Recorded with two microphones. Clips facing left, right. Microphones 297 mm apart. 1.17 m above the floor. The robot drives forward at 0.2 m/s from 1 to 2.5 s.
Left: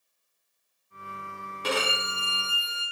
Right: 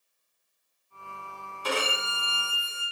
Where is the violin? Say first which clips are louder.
Left 1 dB; 75° left (ahead or behind), 0.9 m; by 2.8 s 70° left (ahead or behind), 0.9 m.